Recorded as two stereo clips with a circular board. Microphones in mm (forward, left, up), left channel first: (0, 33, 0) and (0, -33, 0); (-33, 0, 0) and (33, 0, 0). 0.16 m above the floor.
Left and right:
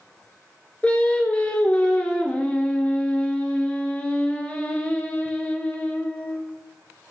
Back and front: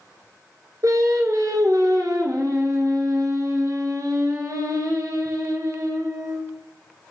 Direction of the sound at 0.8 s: 25° left.